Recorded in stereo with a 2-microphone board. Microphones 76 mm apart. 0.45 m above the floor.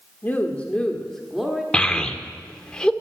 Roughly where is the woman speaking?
Left.